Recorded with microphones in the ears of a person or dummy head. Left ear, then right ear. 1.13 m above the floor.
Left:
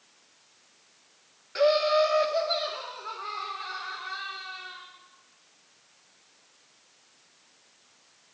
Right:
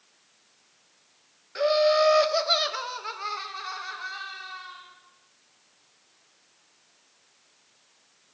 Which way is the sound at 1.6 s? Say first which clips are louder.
Right 1 dB; 5° left (ahead or behind).